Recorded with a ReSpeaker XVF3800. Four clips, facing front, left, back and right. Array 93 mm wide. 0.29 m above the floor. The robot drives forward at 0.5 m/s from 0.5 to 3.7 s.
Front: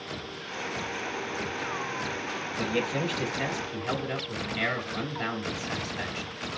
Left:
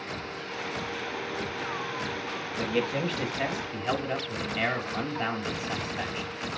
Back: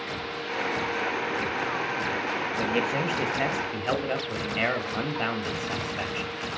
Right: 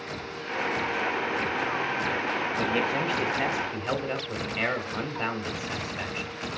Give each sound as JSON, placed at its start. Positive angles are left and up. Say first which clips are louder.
{"t": 2.6, "sound": "a man speaking", "louder": "left 1 dB, back 1 dB", "azimuth_deg": -140, "distance_m": 1.5}